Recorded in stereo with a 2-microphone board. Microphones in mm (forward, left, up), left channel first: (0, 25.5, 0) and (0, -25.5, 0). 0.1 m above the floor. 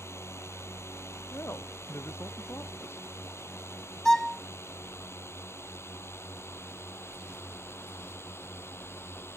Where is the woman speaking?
55° left (ahead or behind).